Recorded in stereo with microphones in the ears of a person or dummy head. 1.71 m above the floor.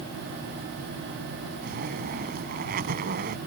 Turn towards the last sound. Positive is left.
turn(degrees=-50)  # may be behind; listen again after turning